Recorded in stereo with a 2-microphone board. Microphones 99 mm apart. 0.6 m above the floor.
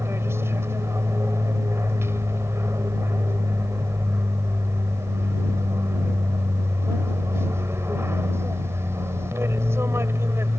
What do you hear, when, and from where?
0.0 s an aircraft: 25° right (ahead or behind)